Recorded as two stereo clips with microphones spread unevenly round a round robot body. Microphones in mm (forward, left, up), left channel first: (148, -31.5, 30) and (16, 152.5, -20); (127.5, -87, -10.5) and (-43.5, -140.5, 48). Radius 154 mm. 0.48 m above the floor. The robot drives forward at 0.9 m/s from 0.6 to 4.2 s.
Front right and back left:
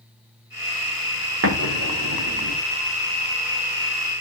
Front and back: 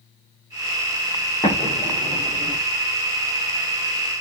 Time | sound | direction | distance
1.4 | an explosion | 95° left | 7.5 m